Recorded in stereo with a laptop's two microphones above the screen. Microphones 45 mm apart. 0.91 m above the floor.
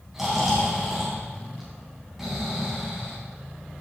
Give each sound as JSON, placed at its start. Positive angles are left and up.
{"t": 0.1, "sound": "snoring", "side_deg": -5, "distance_m": 3.5}